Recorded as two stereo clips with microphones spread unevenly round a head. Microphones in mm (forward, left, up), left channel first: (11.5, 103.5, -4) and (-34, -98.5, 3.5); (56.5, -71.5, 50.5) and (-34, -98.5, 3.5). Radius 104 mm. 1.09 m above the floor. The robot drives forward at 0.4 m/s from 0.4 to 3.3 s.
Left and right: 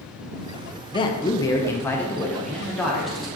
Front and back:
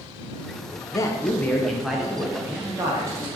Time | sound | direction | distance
0.9 | a man speaking | 90° left | 0.6 m